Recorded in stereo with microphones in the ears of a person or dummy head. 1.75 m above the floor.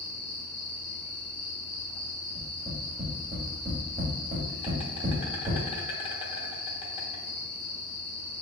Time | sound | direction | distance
0.0 | an insect | 25° left (ahead or behind) | 1.0 m
2.4 | tapping | 30° right (ahead or behind) | 1.5 m